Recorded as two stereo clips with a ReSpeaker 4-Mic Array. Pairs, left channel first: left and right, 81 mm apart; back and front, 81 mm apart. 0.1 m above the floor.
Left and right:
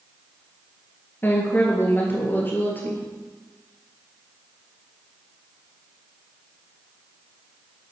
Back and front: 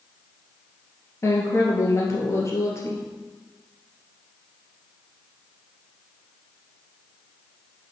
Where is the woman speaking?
145° left, 2 m.